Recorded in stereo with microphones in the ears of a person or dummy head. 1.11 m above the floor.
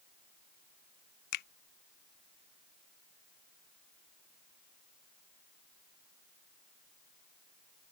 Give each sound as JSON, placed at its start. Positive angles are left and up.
{"t": 1.3, "sound": "a finger snap", "side_deg": 60}